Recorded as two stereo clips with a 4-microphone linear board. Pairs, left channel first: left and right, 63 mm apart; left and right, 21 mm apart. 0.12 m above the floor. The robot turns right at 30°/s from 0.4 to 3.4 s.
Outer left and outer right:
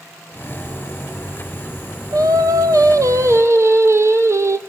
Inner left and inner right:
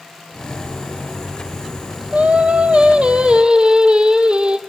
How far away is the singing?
About 1.4 m.